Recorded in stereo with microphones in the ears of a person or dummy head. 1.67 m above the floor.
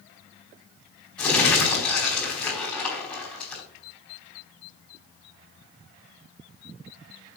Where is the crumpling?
5° left (ahead or behind), 4.5 m.